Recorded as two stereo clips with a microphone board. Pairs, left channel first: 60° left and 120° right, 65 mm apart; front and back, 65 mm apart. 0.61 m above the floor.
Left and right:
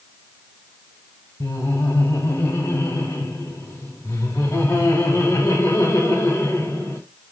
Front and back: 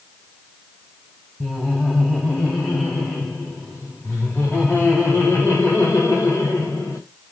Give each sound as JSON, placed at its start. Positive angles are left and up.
{"t": 1.4, "sound": "laughter", "azimuth_deg": 80, "distance_m": 3.0}